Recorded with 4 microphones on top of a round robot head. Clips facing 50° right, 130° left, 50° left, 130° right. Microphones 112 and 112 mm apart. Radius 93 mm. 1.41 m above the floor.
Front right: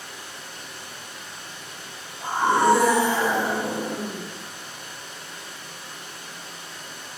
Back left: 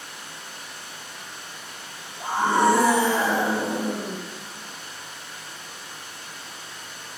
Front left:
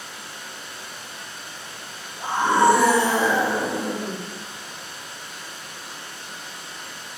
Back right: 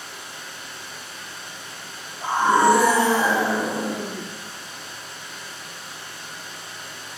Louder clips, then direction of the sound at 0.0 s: Front right 1 dB, even; 50° right.